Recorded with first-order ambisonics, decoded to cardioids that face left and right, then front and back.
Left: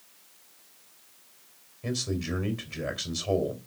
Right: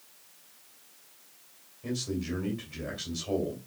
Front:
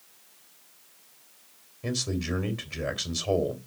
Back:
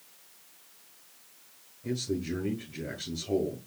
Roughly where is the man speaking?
Ahead.